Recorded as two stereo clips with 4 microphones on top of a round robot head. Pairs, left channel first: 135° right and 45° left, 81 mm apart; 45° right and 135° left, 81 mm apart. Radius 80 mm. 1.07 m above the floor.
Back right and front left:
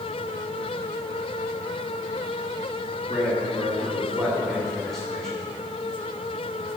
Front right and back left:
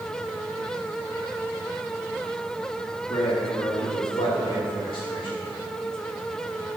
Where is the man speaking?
60° right, 2.5 m; by 5.3 s 50° right, 4.5 m.